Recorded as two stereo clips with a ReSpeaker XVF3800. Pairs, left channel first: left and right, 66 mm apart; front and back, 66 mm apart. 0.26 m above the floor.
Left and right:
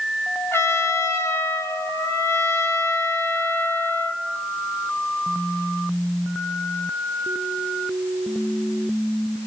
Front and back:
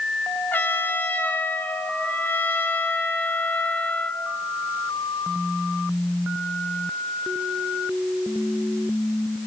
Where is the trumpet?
55° left, 2 m.